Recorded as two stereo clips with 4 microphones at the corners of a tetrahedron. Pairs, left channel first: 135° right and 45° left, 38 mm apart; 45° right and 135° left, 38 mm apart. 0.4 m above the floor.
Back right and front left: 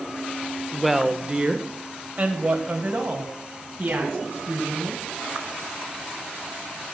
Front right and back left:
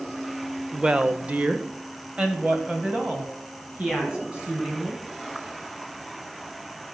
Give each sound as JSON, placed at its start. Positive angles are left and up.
{"t": 0.7, "sound": "a woman speaking", "azimuth_deg": 145, "distance_m": 0.8}